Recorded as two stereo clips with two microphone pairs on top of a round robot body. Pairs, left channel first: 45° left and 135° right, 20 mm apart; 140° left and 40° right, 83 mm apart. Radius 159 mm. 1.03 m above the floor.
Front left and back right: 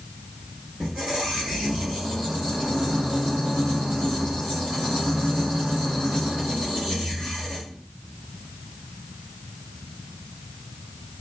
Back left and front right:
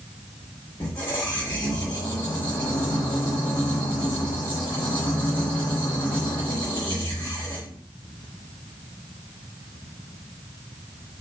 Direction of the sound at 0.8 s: 175° right.